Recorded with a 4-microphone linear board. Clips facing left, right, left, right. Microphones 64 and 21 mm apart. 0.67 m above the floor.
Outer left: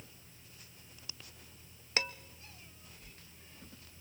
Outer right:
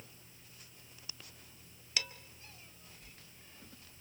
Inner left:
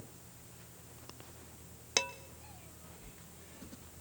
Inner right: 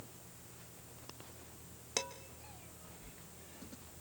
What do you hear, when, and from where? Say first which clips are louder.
2.0 s dishes clattering: outer left 5 dB, inner left 6 dB; 35° left (ahead or behind), 0.9 m